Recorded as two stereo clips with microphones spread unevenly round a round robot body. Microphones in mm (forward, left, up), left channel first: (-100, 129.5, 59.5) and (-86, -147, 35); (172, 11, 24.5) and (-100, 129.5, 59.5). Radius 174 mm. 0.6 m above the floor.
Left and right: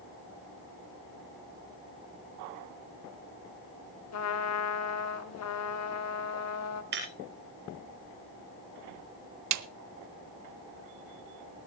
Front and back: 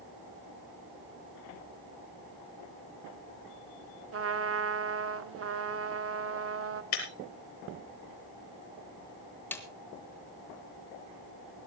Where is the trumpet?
115° left, 1.5 m.